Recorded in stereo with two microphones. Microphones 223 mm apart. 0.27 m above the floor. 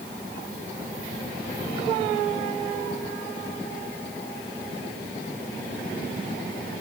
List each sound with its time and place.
Only background noise.